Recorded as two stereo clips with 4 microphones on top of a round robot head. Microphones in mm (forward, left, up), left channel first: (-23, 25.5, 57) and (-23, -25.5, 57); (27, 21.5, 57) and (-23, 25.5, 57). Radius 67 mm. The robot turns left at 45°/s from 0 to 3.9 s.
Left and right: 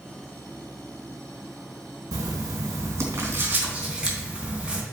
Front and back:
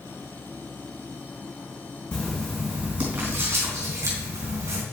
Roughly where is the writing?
Right.